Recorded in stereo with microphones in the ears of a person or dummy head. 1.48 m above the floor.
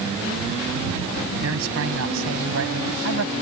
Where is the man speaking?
75° right (ahead or behind); by 3.3 s 80° right.